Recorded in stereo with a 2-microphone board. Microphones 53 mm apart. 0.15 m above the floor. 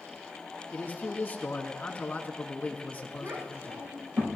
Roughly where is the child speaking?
Right.